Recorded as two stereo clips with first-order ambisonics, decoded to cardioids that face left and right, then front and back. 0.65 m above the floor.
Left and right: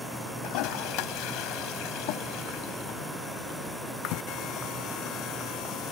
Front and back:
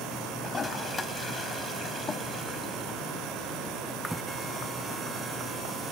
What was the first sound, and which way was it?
A toilet flushing, 75° left.